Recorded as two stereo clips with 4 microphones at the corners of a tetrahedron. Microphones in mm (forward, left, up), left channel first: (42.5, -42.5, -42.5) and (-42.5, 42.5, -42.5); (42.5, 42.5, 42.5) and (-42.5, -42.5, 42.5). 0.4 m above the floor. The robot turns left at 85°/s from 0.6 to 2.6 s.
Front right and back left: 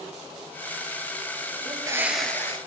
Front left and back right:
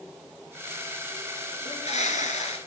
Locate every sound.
1.6 s a bird: 90° left, 1.5 m; by 2.6 s 10° left, 1.5 m